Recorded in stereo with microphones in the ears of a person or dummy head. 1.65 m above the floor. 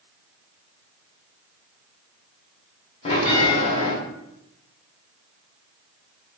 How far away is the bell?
About 0.8 m.